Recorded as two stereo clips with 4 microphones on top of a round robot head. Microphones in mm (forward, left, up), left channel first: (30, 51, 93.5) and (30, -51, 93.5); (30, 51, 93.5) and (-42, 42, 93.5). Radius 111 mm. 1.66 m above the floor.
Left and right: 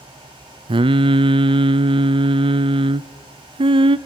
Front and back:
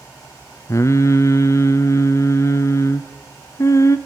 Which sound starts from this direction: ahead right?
Singing, at 0.7 s.